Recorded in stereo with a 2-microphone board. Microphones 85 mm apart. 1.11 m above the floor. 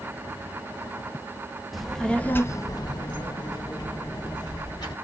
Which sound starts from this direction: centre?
A child speaking, at 1.7 s.